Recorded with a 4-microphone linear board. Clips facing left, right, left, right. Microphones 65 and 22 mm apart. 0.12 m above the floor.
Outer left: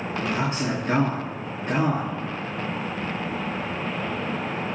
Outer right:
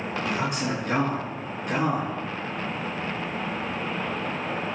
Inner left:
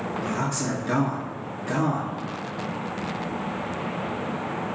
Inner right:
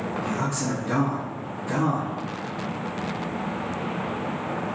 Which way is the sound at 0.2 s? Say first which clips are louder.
Outer left 2 dB, even; 35° left (ahead or behind).